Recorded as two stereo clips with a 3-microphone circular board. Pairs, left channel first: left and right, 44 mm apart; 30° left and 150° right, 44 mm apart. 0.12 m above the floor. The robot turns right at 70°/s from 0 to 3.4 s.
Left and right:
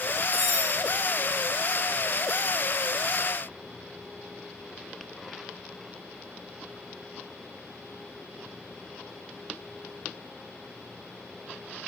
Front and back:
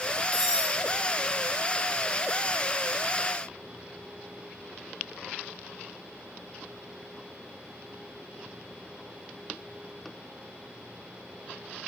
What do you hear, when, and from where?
0.3 s cutlery clinking: 100° right, 8 m; by 0.8 s 70° right, 8 m